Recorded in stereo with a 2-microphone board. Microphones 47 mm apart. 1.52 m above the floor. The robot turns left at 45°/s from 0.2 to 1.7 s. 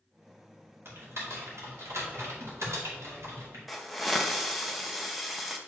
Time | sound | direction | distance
0.8 | typing on a keyboard | 50° right (ahead or behind) | 2.5 m
3.7 | a hiss | centre (ahead or behind) | 0.7 m